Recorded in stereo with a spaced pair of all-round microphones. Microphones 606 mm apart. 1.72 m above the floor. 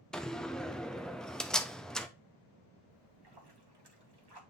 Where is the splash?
40° right (ahead or behind), 1.3 m.